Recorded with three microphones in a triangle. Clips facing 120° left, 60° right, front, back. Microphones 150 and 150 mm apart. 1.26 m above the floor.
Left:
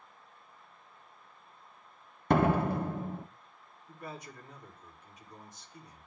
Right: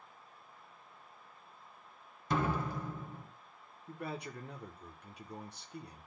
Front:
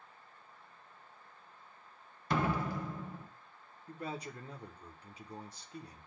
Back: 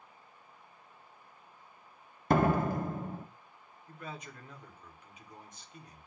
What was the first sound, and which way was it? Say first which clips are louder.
A door slam: left 8 dB, back 6 dB; 145° left.